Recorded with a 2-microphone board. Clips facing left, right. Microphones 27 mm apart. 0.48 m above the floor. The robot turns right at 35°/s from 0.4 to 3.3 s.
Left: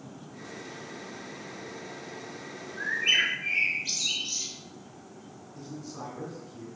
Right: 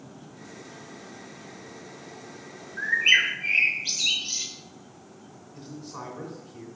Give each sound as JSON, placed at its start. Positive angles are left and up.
{"t": 2.8, "sound": "a bird", "side_deg": -35, "distance_m": 1.3}
{"t": 5.5, "sound": "a man speaking", "side_deg": -60, "distance_m": 3.0}